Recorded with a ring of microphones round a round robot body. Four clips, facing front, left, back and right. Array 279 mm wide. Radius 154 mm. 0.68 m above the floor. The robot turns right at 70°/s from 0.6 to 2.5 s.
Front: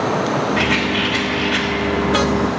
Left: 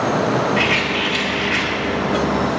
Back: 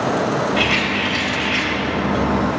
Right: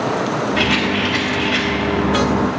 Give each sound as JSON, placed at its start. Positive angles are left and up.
{"t": 0.6, "sound": "a rattle", "azimuth_deg": -25, "distance_m": 3.0}